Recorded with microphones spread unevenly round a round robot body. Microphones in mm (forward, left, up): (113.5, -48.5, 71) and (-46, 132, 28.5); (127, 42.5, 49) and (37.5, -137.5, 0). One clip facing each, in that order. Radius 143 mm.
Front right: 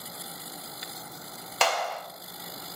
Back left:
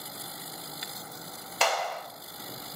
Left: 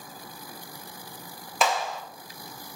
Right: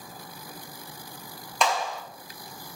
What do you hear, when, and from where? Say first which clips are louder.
1.6 s a clap: front right 1 dB, even; 25° right, 0.6 m